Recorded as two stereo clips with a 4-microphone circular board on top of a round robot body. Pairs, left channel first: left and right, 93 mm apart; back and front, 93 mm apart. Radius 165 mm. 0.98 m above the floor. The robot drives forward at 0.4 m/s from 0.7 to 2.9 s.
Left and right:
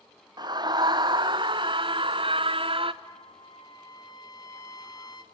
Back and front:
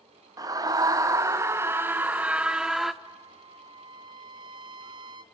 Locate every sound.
0.4 s a scream: 50° right, 1.6 m; by 2.9 s 90° right, 1.3 m
3.0 s a trumpet: 40° left, 0.6 m